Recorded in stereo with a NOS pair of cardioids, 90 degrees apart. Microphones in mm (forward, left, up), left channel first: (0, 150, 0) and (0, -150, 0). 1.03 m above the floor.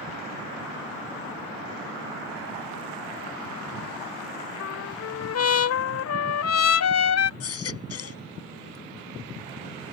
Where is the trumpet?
60° left.